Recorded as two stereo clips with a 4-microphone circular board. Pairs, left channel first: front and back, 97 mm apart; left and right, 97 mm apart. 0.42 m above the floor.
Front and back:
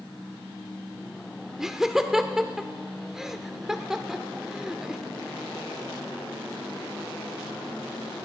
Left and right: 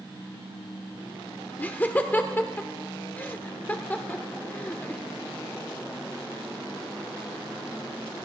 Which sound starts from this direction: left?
Laughter, at 1.6 s.